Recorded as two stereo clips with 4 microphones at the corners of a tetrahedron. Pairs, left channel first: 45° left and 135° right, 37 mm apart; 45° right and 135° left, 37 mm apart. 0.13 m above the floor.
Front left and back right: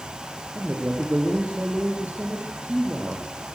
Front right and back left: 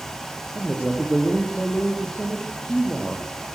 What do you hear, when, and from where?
0.6 s a man speaking: 100° right, 3.5 m